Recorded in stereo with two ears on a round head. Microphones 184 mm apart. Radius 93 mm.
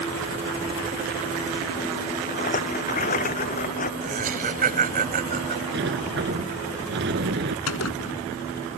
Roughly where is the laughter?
Right.